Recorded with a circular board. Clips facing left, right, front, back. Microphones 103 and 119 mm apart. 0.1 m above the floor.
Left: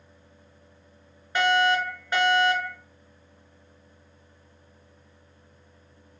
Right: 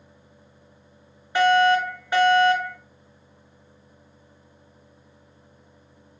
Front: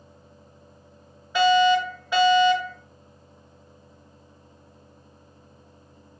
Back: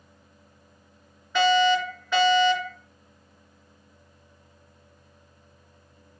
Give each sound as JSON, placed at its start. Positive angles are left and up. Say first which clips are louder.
{"t": 1.4, "sound": "a fire alarm", "louder": "right 5 dB, front 2 dB", "azimuth_deg": -45, "distance_m": 2.5}